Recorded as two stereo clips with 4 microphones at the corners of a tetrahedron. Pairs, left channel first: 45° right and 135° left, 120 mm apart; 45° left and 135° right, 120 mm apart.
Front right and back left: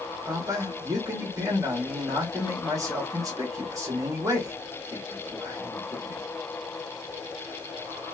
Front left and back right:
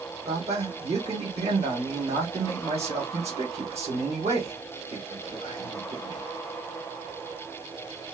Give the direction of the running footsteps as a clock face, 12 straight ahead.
No running footsteps in this recording.